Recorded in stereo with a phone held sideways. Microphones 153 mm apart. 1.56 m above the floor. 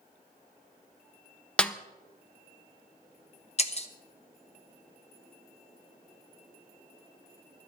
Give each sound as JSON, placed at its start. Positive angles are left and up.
{"t": 1.6, "sound": "a snare drum", "side_deg": 10, "distance_m": 0.6}
{"t": 3.6, "sound": "breaking glass", "side_deg": 45, "distance_m": 0.9}